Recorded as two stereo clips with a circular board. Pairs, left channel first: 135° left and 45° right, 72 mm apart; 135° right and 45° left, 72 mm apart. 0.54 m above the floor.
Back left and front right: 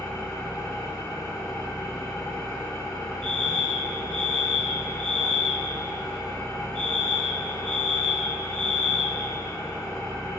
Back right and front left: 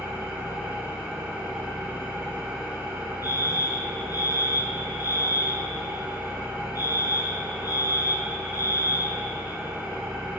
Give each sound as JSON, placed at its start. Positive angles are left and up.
{"t": 0.0, "sound": "an engine running", "azimuth_deg": 110, "distance_m": 6.0}
{"t": 3.2, "sound": "a fire alarm", "azimuth_deg": -150, "distance_m": 4.0}